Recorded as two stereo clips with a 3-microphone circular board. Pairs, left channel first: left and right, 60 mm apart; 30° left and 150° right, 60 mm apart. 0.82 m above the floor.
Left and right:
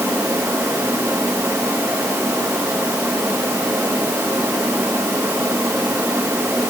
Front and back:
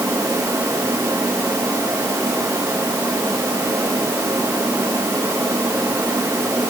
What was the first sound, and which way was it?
Only background noise.